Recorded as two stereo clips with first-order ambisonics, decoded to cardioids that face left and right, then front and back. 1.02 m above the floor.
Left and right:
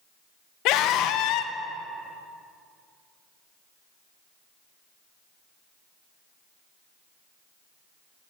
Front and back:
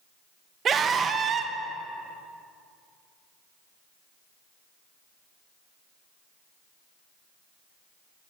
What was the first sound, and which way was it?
A scream, 120° left.